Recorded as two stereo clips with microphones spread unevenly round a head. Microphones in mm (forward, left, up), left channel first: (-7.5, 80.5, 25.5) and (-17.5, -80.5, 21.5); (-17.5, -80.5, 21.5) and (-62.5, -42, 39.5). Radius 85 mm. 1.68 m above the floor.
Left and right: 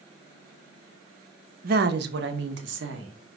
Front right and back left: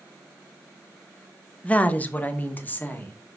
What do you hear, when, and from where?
1.6 s a woman speaking: 115° right, 0.9 m; by 3.1 s 105° right, 2 m